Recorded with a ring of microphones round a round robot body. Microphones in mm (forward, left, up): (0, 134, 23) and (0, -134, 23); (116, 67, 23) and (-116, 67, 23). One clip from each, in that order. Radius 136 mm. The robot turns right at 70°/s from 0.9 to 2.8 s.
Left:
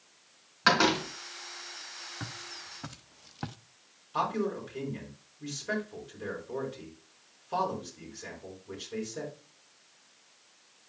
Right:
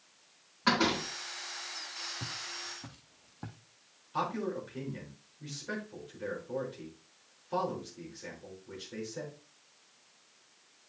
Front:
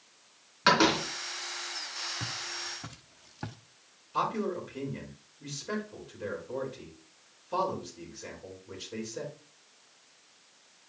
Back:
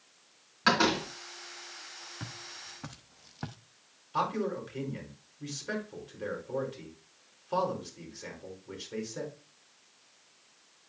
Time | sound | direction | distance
0.7 | a door slam | 80° left | 3 m
2.2 | footsteps | 75° left | 1.7 m
4.1 | a man speaking | straight behind | 5 m